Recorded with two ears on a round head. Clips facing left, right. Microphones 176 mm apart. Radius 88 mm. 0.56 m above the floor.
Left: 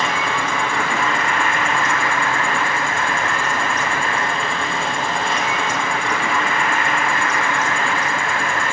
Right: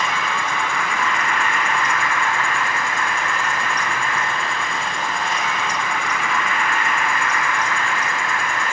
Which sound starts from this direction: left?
An insect, at 0.0 s.